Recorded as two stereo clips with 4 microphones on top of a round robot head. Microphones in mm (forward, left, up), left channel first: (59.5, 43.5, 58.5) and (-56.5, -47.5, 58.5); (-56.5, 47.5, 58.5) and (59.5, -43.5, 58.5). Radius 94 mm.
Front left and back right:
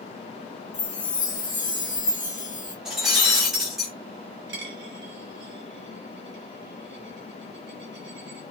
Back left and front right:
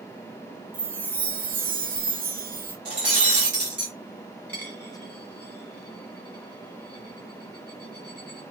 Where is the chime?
25° right, 1.6 m.